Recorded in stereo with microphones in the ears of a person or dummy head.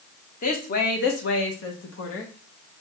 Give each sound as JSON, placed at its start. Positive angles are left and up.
{"t": 0.4, "sound": "a woman speaking", "side_deg": 40, "distance_m": 1.0}